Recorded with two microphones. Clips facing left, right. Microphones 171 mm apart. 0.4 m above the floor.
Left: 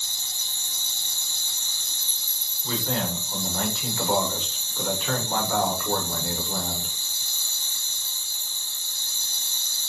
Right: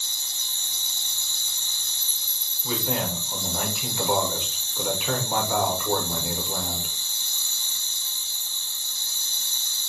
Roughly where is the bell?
No bell in this recording.